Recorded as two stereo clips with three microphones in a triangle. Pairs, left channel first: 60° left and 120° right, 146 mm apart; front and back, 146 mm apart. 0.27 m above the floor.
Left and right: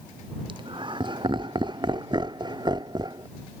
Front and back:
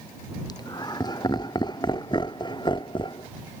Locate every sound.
0.5 s laughter: 65° right; by 3.3 s 60° right